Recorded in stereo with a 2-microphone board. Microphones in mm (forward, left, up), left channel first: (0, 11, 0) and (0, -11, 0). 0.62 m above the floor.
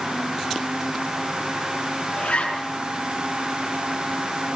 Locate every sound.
2.2 s a zipper: 75° left (ahead or behind), 6 m